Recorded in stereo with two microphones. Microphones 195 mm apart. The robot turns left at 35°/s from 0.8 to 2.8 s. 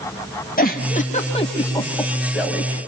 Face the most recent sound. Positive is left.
turn(degrees=-15)  # may be behind; listen again after turning